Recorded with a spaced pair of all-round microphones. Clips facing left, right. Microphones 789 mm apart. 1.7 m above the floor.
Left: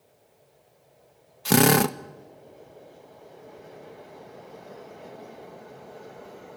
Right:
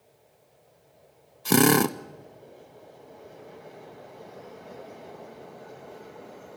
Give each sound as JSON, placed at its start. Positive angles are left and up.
{"t": 1.4, "sound": "a drill", "side_deg": 25, "distance_m": 0.6}